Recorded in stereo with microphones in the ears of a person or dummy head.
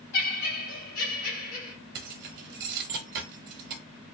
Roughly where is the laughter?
Left.